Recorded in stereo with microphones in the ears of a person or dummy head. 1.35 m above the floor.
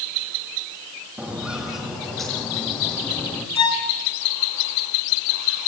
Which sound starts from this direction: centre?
Footsteps, at 1.2 s.